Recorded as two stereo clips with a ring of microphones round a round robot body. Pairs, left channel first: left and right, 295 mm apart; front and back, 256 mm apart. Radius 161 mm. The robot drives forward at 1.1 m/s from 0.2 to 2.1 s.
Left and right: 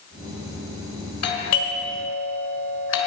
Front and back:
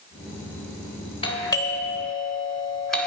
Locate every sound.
1.2 s a doorbell: 65° left, 3 m; by 3.1 s 85° left, 3 m